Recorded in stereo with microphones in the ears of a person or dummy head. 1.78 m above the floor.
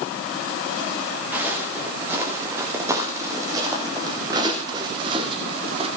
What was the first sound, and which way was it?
Footsteps, 5° right (ahead or behind).